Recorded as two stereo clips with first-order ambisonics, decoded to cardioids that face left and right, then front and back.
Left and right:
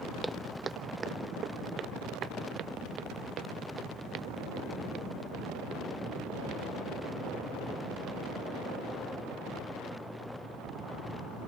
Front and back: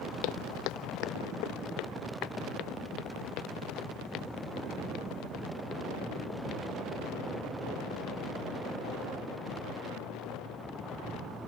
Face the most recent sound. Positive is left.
turn(degrees=-45)